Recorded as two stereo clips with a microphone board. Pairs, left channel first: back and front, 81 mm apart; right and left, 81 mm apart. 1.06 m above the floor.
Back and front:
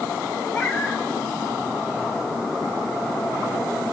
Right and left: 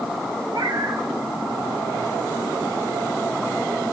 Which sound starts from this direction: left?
A cat meowing, at 0.5 s.